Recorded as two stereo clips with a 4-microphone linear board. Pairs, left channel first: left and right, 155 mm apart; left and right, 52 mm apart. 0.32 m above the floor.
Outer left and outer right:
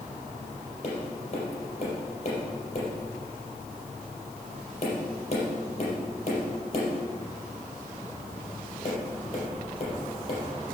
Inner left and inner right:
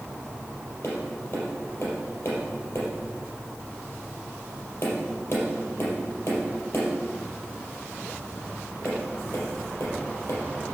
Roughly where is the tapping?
Left.